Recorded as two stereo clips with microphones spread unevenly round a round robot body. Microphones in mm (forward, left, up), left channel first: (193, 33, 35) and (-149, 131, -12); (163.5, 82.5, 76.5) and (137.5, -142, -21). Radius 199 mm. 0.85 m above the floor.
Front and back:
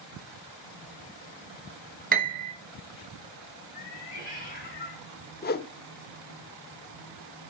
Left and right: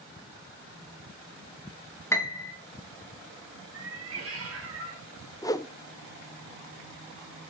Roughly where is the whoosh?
Ahead left.